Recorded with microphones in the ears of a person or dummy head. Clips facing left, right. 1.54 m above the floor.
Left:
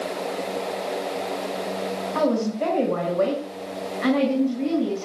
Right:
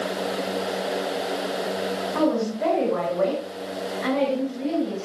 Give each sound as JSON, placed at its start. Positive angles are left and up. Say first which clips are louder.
{"t": 2.1, "sound": "a woman speaking", "louder": "left 1 dB", "side_deg": 50, "distance_m": 6.5}